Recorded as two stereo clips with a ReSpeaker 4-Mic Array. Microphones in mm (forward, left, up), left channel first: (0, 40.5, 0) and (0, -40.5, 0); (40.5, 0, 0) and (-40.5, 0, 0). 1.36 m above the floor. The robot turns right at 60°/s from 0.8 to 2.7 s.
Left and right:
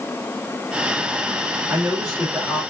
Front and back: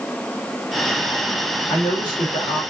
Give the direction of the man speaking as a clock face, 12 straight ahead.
1 o'clock.